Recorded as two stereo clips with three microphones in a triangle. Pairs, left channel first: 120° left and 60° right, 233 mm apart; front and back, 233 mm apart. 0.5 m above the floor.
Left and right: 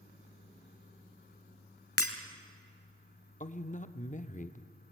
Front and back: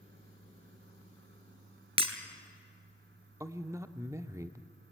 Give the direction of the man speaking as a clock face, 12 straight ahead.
8 o'clock.